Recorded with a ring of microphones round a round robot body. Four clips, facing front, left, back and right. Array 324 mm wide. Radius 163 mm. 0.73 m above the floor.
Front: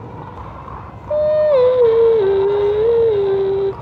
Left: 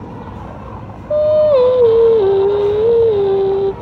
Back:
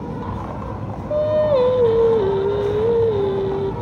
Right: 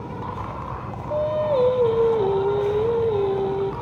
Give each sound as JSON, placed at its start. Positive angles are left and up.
{"t": 0.0, "sound": "an insect", "azimuth_deg": 165, "distance_m": 6.5}
{"t": 1.1, "sound": "singing", "azimuth_deg": 65, "distance_m": 0.6}